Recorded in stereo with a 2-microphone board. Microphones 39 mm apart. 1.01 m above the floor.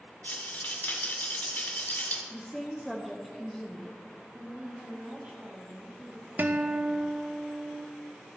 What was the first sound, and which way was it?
A rattle, 45° left (ahead or behind).